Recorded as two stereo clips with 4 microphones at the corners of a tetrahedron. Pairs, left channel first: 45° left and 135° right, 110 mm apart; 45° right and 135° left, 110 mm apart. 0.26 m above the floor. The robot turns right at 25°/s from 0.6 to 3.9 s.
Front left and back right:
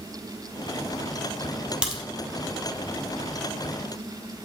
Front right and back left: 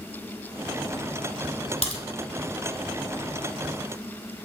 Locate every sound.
1.8 s a crack: 55° right, 2 m; by 2.0 s 50° right, 2 m